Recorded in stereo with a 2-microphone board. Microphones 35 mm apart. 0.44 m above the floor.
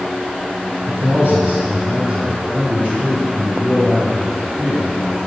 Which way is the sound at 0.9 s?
60° right (ahead or behind).